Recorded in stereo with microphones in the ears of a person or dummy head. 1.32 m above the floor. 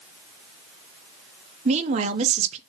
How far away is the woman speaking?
About 0.6 m.